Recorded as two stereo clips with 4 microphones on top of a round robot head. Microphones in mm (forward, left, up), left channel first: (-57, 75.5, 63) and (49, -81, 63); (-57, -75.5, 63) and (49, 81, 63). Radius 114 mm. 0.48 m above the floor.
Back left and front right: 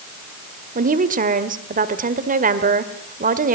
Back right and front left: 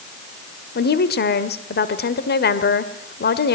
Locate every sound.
0.8 s a woman speaking: 95° right, 1.8 m